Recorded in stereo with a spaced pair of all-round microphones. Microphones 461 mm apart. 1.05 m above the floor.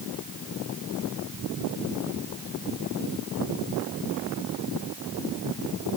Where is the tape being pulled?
No tape being pulled in this recording.